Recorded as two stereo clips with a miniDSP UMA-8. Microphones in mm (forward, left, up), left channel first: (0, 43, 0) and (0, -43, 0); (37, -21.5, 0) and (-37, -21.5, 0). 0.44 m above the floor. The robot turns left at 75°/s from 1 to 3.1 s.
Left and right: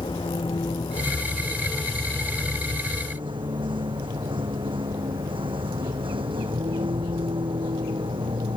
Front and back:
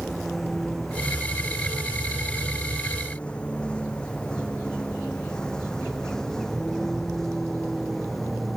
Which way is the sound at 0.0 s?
90° left.